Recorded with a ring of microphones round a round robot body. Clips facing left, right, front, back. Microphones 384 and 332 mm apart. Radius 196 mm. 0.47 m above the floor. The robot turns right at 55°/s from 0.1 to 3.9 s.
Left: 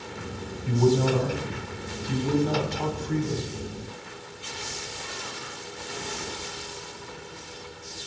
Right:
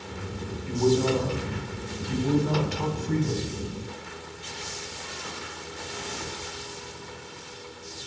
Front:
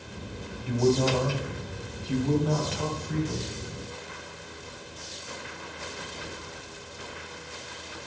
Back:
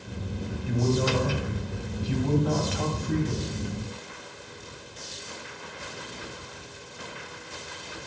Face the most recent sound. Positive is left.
turn(degrees=-95)